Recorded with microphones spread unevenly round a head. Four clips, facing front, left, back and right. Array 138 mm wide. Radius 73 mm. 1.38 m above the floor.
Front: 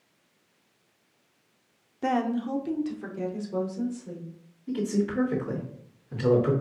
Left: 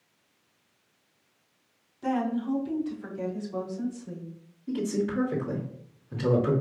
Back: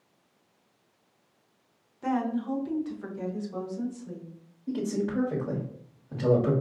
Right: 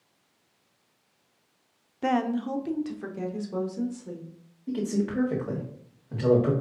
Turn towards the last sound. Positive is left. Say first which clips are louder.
# even, front 2 dB
turn(degrees=-130)